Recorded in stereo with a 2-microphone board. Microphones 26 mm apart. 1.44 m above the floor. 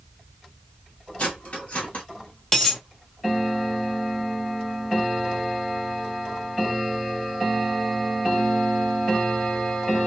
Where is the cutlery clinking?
55° left (ahead or behind), 1.4 m.